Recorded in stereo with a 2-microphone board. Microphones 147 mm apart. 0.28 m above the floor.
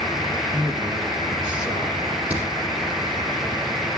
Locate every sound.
0.5 s a man speaking: 5° right (ahead or behind), 4.5 m
2.3 s a crack: 10° right (ahead or behind), 8 m